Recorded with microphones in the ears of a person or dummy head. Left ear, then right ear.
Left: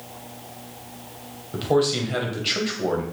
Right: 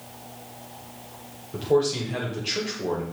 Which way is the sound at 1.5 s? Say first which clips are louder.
Left 1 dB; 15° left (ahead or behind).